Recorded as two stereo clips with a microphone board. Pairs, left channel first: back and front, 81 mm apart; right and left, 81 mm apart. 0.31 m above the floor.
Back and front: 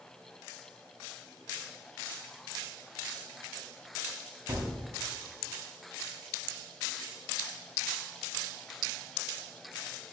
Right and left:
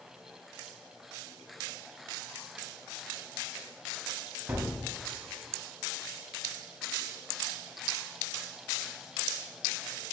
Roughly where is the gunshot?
Ahead left.